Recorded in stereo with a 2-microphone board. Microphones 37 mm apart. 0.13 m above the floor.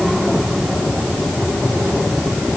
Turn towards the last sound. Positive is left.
No sound to turn to.